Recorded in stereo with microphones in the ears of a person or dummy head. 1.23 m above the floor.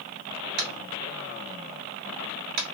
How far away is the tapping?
About 0.6 m.